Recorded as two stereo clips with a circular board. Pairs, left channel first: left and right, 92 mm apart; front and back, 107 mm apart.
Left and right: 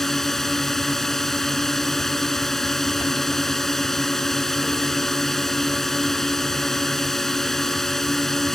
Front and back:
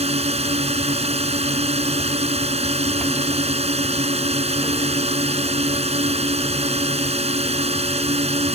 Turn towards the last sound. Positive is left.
turn(degrees=175)